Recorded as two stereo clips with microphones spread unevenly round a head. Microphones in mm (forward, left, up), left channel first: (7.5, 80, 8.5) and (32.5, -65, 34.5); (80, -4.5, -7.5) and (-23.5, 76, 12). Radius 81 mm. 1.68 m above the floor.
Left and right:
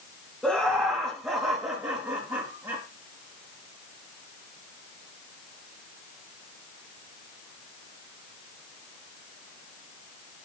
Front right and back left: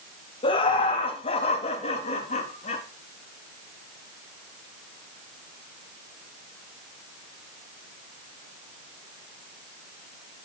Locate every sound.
0.4 s laughter: 5° left, 3 m; by 2.8 s 15° right, 4 m